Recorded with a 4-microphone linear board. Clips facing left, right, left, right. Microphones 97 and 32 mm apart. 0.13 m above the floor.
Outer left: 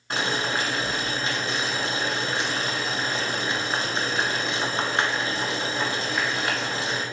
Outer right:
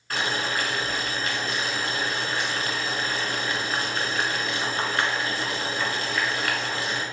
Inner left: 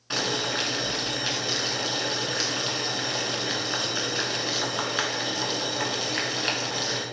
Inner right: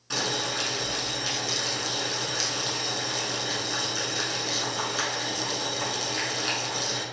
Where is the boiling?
25° left (ahead or behind), 0.9 m.